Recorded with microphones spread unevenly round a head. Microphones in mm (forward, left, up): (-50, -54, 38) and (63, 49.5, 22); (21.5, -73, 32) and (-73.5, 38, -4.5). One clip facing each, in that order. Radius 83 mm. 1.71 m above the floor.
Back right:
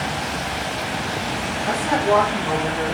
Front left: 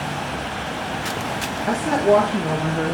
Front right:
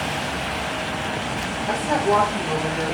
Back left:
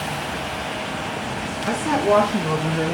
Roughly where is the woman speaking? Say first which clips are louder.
Front left 3 dB, back left 2 dB; left.